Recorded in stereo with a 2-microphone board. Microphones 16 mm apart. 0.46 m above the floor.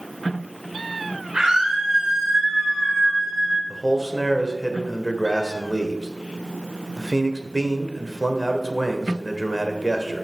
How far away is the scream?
About 2.0 m.